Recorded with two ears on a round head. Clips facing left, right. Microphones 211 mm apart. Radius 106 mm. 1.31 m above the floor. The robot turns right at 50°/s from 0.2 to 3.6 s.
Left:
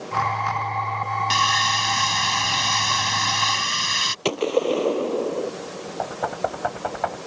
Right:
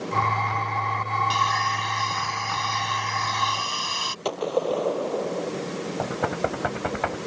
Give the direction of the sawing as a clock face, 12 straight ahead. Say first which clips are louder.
Left 1 dB; 11 o'clock.